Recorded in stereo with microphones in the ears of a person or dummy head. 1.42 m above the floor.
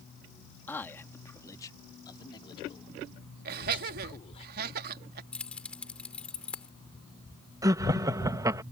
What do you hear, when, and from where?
0.7 s a man speaking: 10° left (ahead or behind); by 4.5 s 35° left (ahead or behind)
3.5 s laughter: 55° right (ahead or behind)
5.3 s keys jangling: 5° left (ahead or behind)
7.6 s laughter: 20° right (ahead or behind)